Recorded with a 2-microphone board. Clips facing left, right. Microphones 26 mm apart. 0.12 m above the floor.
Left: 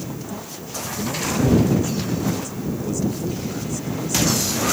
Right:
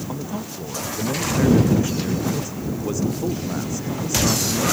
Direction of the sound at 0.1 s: 30° right (ahead or behind).